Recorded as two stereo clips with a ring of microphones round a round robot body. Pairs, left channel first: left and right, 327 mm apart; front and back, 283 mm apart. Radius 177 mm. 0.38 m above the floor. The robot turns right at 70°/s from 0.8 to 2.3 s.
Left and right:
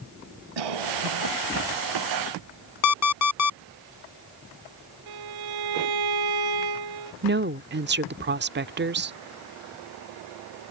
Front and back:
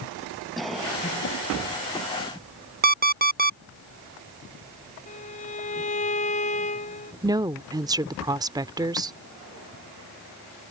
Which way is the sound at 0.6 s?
90° right.